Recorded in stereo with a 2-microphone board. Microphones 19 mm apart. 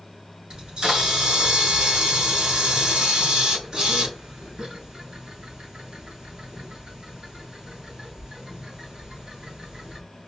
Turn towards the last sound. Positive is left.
turn(degrees=-55)  # may be behind; listen again after turning